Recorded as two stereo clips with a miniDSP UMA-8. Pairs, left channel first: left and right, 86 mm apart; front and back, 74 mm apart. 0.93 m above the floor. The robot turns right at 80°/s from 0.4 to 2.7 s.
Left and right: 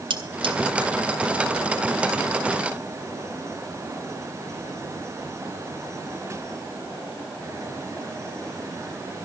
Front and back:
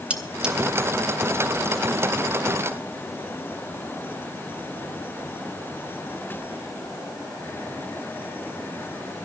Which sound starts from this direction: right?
Cutlery clinking, at 0.1 s.